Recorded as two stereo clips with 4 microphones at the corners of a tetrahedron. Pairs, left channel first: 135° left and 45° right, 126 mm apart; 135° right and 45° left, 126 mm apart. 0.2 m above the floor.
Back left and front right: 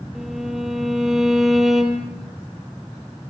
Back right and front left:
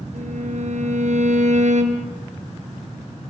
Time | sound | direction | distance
0.1 | a violin | 45° left | 3 m